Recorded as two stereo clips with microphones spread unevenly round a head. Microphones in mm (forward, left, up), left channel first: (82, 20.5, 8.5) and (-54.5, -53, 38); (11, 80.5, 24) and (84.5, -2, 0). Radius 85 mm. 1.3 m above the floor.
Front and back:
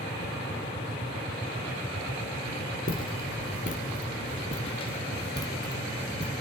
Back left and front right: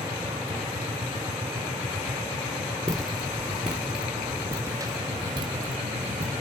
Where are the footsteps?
60° left, 1.7 m; by 6.3 s 65° right, 1.6 m.